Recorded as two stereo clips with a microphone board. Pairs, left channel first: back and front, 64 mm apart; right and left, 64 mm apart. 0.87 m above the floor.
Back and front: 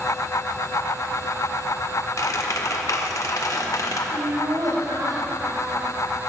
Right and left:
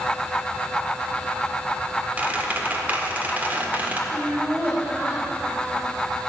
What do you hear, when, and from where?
2.2 s a squeak: 155° left, 1.5 m
4.1 s laughter: 20° left, 5.5 m